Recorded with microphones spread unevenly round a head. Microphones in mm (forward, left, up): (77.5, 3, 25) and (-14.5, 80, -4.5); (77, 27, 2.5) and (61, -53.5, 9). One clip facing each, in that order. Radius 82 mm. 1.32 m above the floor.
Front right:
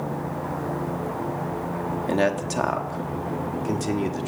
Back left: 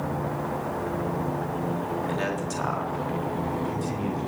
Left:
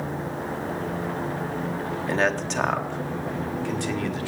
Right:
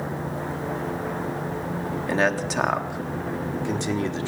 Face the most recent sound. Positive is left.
turn(degrees=-40)